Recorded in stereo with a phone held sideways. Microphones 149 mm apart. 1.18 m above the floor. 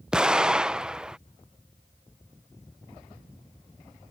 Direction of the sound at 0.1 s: 5° right (ahead or behind).